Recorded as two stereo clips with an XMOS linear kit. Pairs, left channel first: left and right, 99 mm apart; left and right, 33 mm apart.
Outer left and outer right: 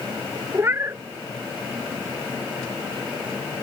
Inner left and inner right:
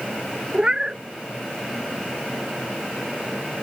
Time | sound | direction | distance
0.5 | a cat meowing | 25° right (ahead or behind) | ?